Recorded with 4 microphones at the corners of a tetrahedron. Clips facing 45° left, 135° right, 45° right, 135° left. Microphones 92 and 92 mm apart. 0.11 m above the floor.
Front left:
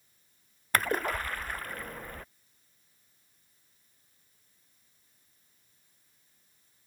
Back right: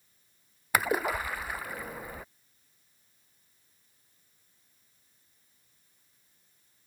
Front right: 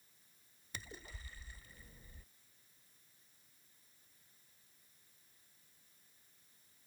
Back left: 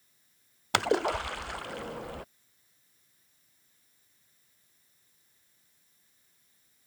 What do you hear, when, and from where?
0.7 s a splash: 145° left